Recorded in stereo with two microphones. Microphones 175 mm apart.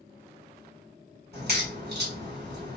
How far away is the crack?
About 1.7 m.